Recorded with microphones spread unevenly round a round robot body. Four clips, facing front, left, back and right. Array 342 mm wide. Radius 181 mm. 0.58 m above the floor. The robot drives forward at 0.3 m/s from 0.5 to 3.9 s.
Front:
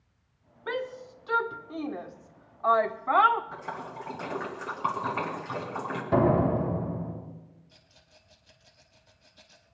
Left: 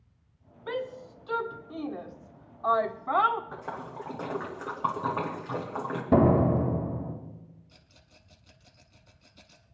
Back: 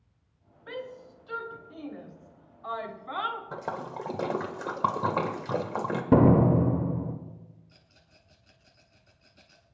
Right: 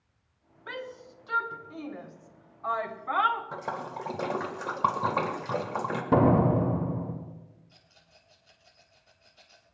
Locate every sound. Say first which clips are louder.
0.7 s a shout: left 6 dB, front 6 dB; 15° left, 1.6 m; by 3.4 s 35° left, 0.9 m
3.5 s a splash: right 3 dB, back 3 dB; 145° right, 1.6 m
6.1 s a door slam: even, back 3 dB; 160° left, 2.0 m
7.7 s a rattle: left 1 dB, front 1 dB; 130° left, 0.7 m